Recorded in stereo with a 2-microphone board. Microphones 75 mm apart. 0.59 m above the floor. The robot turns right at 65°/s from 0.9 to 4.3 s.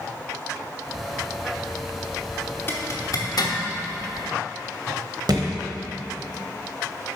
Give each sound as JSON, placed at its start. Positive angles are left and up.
{"t": 2.7, "sound": "a zipper", "side_deg": 30, "distance_m": 1.0}
{"t": 5.3, "sound": "a thud", "side_deg": -65, "distance_m": 1.1}